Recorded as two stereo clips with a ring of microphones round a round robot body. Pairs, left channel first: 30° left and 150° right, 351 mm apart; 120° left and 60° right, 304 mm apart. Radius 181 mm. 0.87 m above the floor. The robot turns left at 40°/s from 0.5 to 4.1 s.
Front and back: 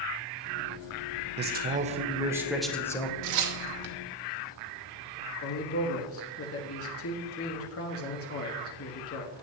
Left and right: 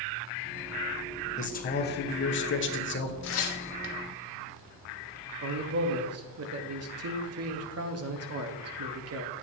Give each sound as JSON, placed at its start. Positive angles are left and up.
{"t": 1.4, "sound": "a man speaking", "azimuth_deg": 170, "distance_m": 1.0}
{"t": 3.2, "sound": "tearing paper", "azimuth_deg": 175, "distance_m": 1.0}
{"t": 5.4, "sound": "a man speaking", "azimuth_deg": -20, "distance_m": 1.2}